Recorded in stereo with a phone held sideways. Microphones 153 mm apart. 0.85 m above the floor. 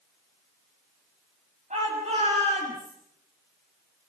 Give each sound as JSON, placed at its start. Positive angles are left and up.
{"t": 1.7, "sound": "a shout", "side_deg": -55, "distance_m": 7.0}